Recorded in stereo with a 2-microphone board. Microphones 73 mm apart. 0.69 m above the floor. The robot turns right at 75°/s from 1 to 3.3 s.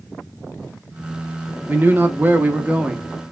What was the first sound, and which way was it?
A man speaking, 25° right (ahead or behind).